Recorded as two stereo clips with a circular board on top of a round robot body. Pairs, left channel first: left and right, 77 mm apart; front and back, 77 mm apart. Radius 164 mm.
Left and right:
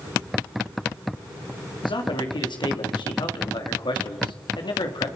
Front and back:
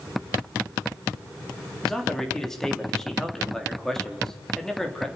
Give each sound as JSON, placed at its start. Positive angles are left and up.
{"t": 1.8, "sound": "a man speaking", "azimuth_deg": 85, "distance_m": 3.0}